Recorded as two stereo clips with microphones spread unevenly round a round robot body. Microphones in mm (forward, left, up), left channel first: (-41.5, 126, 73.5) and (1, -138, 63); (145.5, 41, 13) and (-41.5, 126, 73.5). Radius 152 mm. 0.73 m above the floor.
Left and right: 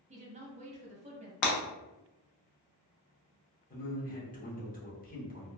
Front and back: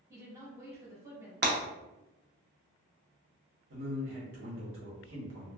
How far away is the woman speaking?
About 0.9 m.